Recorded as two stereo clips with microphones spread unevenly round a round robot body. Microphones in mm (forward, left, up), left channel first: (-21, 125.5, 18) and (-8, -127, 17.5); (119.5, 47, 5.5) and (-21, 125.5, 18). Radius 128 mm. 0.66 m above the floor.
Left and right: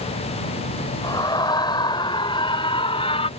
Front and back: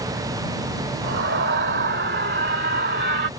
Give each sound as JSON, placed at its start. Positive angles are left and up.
{"t": 1.0, "sound": "a scream", "azimuth_deg": 170}